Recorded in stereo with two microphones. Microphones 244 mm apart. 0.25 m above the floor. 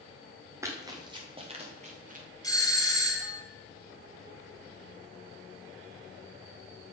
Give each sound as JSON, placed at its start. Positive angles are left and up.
{"t": 0.6, "sound": "running footsteps", "side_deg": -10, "distance_m": 3.0}
{"t": 2.4, "sound": "a doorbell", "side_deg": 15, "distance_m": 1.7}